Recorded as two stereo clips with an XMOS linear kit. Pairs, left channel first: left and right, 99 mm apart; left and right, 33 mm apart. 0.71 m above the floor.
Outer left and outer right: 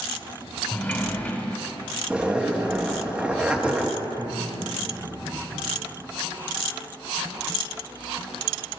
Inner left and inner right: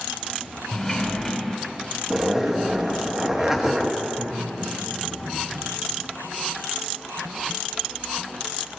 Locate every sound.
0.7 s a sliding door: 20° left (ahead or behind), 1.4 m
2.1 s a zipper: 10° right (ahead or behind), 0.9 m
4.0 s laughter: 45° right (ahead or behind), 3.5 m